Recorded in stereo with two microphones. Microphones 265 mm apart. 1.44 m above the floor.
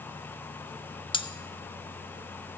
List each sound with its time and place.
1.1 s cutlery clinking: 20° left (ahead or behind), 0.8 m